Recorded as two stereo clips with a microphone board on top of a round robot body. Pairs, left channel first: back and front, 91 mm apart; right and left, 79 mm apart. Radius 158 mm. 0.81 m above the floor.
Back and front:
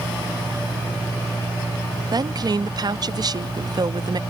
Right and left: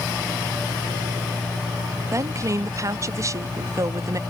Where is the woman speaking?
40° left.